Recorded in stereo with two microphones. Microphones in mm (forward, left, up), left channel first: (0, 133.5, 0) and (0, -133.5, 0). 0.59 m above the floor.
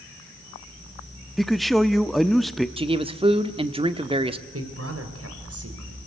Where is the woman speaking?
60° right (ahead or behind), 3 m.